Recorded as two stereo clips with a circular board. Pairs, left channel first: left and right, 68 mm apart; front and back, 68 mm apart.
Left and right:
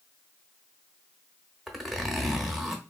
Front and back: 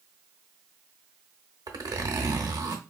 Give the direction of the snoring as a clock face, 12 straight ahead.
No snoring in this recording.